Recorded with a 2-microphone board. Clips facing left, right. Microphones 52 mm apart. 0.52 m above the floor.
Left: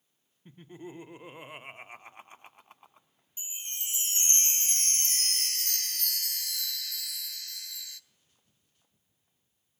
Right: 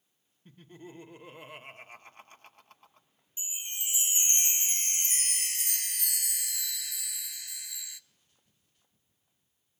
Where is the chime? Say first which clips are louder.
Right 1 dB; 15° right (ahead or behind), 0.5 m.